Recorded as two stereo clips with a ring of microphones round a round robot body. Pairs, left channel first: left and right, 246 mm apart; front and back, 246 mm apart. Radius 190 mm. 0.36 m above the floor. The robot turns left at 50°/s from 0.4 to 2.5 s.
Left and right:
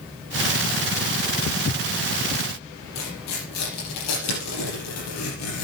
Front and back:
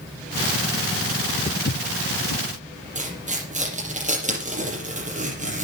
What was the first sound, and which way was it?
Footsteps, 55° left.